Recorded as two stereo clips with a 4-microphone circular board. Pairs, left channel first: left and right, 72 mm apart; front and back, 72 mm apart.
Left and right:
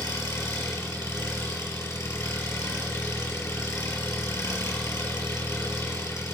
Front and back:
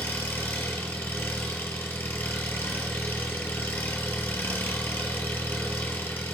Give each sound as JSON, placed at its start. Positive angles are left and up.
{"t": 0.0, "sound": "an engine running", "azimuth_deg": 60, "distance_m": 2.0}